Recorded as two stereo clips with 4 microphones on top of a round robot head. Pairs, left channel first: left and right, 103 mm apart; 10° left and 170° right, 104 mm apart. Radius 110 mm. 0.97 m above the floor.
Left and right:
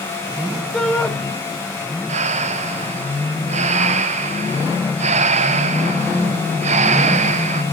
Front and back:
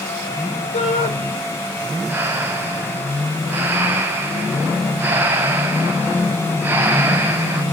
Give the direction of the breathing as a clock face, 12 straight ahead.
3 o'clock.